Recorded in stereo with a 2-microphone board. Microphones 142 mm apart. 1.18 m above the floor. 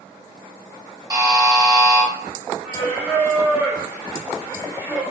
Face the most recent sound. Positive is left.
turn(degrees=-15)  # may be behind; listen again after turning